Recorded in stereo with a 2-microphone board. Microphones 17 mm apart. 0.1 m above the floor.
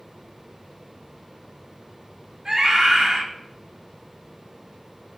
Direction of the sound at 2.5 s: 35° right (ahead or behind).